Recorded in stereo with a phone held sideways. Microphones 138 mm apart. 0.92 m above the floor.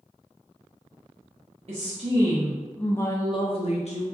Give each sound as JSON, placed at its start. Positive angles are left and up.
{"t": 1.7, "sound": "a woman speaking", "side_deg": -50, "distance_m": 0.9}